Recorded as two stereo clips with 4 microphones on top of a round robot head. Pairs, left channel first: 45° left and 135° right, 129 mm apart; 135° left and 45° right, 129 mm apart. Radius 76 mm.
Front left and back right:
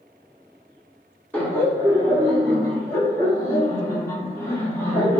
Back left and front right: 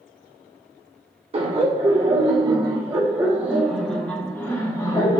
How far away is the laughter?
About 1.9 m.